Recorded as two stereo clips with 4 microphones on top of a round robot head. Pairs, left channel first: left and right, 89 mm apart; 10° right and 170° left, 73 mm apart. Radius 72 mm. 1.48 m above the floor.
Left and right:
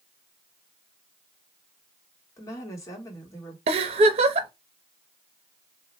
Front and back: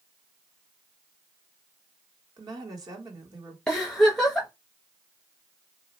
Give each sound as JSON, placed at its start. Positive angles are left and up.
{"t": 2.4, "sound": "a woman speaking", "azimuth_deg": 145, "distance_m": 1.5}
{"t": 3.7, "sound": "a giggle", "azimuth_deg": -95, "distance_m": 0.6}